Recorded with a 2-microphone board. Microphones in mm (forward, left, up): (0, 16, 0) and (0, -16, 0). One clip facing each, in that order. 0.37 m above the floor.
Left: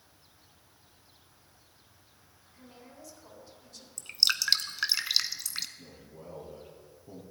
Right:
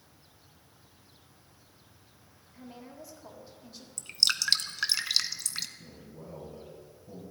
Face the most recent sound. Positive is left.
turn(degrees=55)  # may be behind; listen again after turning